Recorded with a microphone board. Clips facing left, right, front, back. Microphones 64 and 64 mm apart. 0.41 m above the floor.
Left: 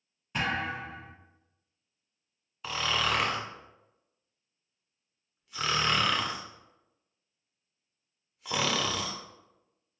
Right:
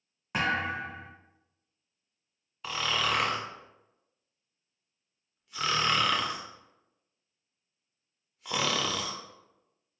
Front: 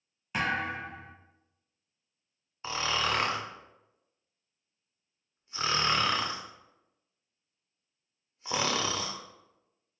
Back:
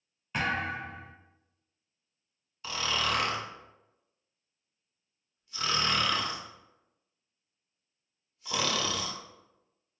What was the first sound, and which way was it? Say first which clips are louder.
A thud: right 2 dB, even; 80° right.